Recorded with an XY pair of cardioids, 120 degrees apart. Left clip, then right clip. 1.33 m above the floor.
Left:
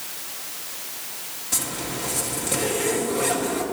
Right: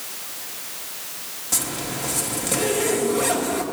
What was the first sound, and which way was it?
A zipper, 20° right.